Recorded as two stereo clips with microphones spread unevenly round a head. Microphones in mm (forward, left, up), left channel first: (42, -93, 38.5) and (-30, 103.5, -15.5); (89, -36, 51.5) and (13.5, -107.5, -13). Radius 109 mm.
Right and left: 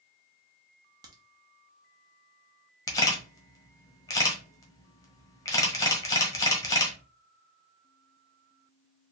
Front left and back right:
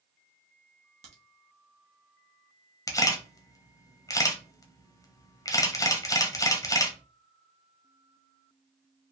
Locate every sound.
1.0 s a crack: 165° right, 1.0 m
2.9 s a camera shutter: straight ahead, 1.2 m